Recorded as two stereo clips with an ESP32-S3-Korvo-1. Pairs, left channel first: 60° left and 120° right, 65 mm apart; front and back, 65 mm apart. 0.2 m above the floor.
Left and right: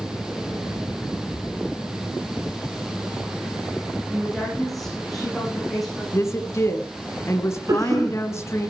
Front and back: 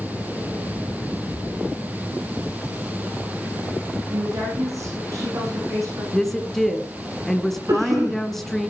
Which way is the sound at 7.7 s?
155° right.